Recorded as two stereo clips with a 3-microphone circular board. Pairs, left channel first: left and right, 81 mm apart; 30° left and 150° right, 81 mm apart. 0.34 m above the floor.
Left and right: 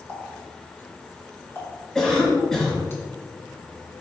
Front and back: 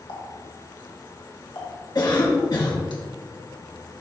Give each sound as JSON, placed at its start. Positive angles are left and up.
{"t": 0.1, "sound": "a running tap", "azimuth_deg": 30, "distance_m": 2.5}
{"t": 1.9, "sound": "a cough", "azimuth_deg": 5, "distance_m": 1.9}